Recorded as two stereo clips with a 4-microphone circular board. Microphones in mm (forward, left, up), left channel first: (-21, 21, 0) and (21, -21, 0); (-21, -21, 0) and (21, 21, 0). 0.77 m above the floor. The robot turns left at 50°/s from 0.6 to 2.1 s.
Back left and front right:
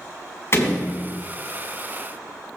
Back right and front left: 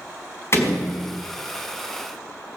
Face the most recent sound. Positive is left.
turn(degrees=105)